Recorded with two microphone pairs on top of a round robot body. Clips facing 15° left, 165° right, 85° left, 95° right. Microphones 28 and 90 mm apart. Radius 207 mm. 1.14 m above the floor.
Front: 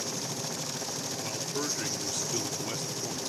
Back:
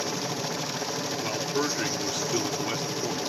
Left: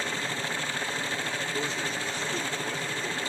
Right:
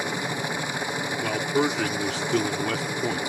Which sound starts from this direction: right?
A man speaking, at 1.2 s.